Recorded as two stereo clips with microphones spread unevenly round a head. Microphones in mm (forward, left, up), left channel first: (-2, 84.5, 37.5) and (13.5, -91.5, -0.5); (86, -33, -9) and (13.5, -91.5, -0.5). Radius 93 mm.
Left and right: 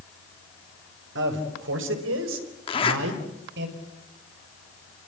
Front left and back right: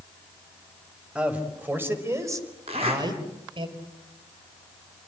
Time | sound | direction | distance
1.1 | a man speaking | 60° right | 4.5 m
2.7 | a zipper | 160° left | 3.5 m